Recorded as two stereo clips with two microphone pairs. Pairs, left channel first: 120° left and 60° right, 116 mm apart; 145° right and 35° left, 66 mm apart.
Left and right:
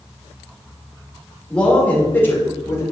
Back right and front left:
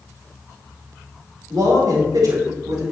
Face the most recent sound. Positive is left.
turn(degrees=55)